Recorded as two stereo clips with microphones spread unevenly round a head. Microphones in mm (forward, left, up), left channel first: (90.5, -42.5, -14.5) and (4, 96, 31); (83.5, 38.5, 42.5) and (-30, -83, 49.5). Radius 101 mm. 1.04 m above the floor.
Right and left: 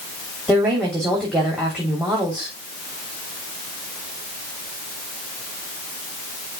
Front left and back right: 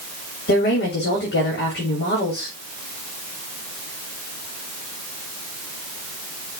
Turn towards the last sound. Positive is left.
turn(degrees=40)